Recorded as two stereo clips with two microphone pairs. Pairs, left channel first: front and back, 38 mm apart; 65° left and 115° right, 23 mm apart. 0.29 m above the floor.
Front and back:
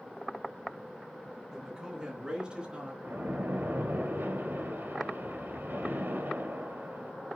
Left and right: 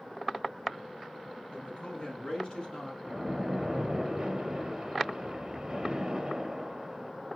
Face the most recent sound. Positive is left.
turn(degrees=170)